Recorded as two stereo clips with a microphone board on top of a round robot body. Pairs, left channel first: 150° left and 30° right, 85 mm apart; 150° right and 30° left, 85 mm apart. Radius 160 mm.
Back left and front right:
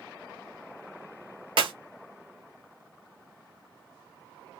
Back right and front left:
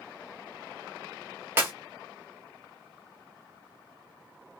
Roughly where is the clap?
Ahead right.